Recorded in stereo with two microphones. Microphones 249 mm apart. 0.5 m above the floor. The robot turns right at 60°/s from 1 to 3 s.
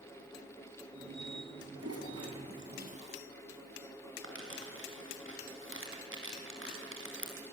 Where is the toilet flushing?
75° right (ahead or behind), 4.5 m; by 3.2 s 25° right (ahead or behind), 4.5 m.